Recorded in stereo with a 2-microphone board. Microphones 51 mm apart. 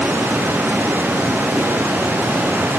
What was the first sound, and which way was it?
Only background noise.